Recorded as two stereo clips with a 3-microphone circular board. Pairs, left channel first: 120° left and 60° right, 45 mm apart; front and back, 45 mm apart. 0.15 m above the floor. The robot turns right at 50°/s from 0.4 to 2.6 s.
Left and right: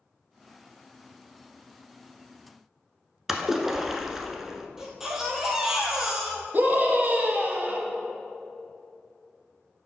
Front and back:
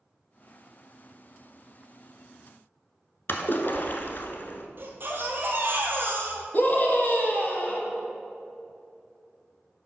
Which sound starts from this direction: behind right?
A baby crying, at 4.8 s.